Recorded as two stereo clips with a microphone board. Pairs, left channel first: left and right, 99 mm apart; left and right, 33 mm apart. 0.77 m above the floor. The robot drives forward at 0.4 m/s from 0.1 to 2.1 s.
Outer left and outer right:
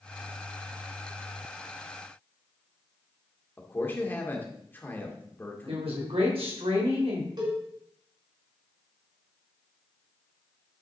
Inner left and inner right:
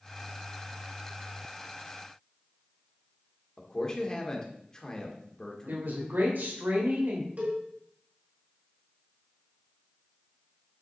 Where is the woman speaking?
80° right, 3 m.